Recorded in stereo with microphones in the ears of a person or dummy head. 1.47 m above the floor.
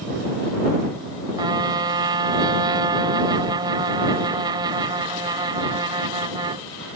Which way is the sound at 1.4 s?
20° right (ahead or behind).